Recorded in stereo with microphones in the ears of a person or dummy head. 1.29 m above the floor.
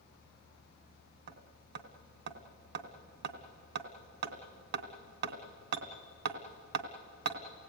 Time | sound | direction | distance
1.3 | hammering | 60° right (ahead or behind) | 1.7 m